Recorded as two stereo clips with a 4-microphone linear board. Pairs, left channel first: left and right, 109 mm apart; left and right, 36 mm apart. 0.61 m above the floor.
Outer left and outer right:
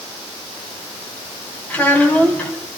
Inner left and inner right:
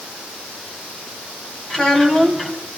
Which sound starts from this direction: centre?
A child speaking, at 1.7 s.